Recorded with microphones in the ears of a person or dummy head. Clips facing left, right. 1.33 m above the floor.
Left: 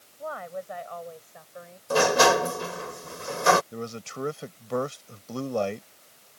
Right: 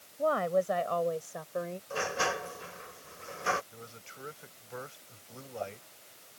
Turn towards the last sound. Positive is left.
turn(degrees=85)